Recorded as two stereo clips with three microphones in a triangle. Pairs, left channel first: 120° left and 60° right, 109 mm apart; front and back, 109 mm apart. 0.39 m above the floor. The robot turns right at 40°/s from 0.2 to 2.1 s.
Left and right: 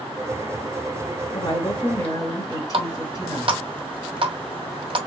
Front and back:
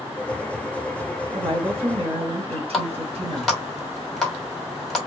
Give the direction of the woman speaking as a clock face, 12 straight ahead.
7 o'clock.